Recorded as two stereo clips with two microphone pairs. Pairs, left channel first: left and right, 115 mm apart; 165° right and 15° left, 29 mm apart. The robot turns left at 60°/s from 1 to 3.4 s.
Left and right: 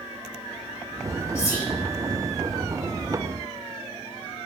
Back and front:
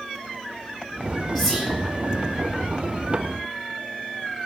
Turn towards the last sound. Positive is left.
turn(degrees=0)